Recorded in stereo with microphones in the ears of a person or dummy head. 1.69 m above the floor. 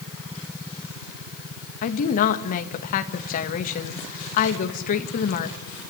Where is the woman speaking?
50° left (ahead or behind), 2 m.